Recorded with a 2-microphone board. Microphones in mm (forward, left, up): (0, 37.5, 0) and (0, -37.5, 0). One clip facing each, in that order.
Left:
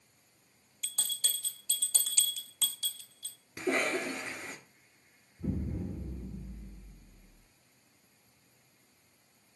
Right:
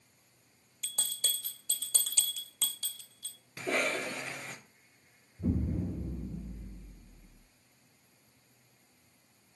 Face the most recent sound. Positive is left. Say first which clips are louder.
# right 4 dB
turn(degrees=-40)  # may be behind; listen again after turning